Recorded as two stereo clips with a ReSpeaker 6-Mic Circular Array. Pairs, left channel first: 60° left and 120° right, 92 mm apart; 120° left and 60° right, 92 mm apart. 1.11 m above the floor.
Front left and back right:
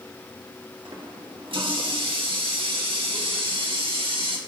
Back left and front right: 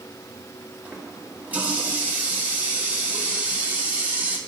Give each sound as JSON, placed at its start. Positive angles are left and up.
{"t": 0.8, "sound": "a running tap", "azimuth_deg": -135, "distance_m": 1.3}